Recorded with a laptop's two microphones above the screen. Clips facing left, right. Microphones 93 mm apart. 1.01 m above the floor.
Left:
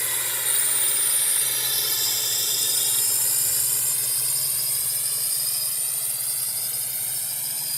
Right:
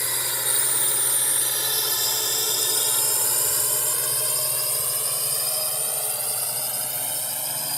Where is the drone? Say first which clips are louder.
Right 2 dB; 15° right (ahead or behind); by 7.8 s 80° right.